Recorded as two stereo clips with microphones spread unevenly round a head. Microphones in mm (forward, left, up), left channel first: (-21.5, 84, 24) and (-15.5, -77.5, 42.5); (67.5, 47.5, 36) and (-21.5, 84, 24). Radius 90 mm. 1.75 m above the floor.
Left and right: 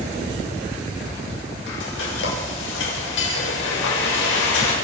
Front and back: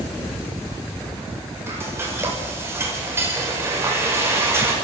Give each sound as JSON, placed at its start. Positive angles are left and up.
{"t": 1.7, "sound": "frying", "azimuth_deg": 90, "distance_m": 7.5}